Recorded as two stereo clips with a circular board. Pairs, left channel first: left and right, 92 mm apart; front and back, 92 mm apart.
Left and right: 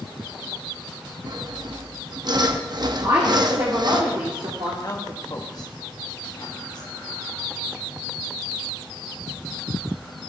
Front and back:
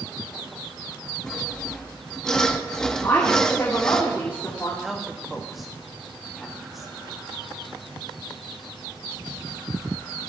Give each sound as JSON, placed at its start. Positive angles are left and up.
{"t": 1.3, "sound": "sawing", "azimuth_deg": -80, "distance_m": 0.9}
{"t": 3.0, "sound": "a woman speaking", "azimuth_deg": -60, "distance_m": 2.5}
{"t": 4.8, "sound": "a woman speaking", "azimuth_deg": 90, "distance_m": 1.3}